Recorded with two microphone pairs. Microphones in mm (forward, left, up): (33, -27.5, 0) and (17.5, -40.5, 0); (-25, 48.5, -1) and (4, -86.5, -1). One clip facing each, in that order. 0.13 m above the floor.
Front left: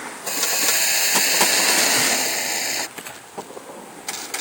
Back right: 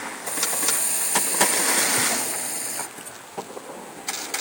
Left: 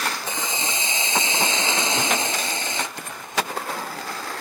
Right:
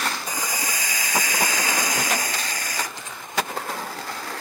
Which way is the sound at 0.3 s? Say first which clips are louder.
Front left 5 dB, left 1 dB; 40° left.